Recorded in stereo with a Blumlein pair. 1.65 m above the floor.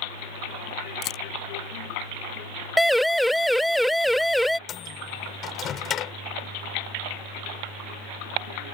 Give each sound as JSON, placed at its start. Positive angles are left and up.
{"t": 1.0, "sound": "a camera shutter", "azimuth_deg": 30}
{"t": 2.8, "sound": "a siren", "azimuth_deg": 0}
{"t": 4.7, "sound": "a microwave", "azimuth_deg": 25}